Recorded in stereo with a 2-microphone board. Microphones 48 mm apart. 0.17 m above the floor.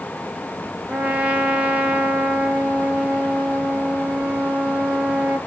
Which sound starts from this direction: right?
A trumpet, at 0.9 s.